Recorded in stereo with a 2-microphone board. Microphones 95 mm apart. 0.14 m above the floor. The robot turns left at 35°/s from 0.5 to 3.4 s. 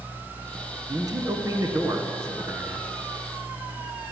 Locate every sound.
0.9 s a man speaking: 80° right, 1.7 m; by 2.9 s 150° right, 1.7 m